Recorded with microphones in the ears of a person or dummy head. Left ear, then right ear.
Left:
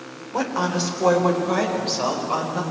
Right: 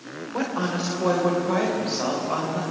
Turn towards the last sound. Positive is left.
turn(degrees=15)  # may be behind; listen again after turning